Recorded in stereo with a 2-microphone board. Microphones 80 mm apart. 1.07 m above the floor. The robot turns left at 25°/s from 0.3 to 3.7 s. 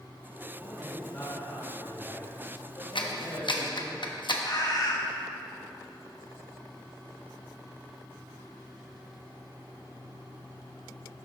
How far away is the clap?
About 0.8 m.